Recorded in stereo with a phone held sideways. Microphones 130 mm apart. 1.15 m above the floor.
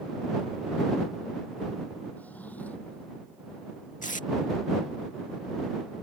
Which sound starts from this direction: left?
Tape being pulled, at 4.0 s.